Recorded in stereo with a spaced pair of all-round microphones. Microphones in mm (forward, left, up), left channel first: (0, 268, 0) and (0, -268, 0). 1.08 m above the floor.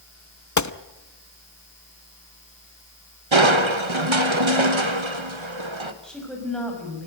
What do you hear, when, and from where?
0.6 s a gunshot: 35° left (ahead or behind), 0.7 m
3.3 s crushing: 60° right (ahead or behind), 1.5 m
6.0 s a woman speaking: centre (ahead or behind), 6 m